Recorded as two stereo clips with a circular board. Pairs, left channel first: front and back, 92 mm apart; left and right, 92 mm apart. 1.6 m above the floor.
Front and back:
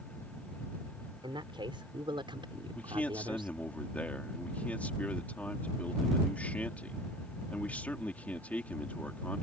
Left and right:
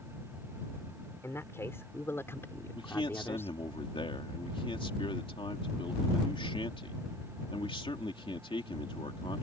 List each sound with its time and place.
1.2 s a man speaking: 155° left
2.8 s a man speaking: 75° left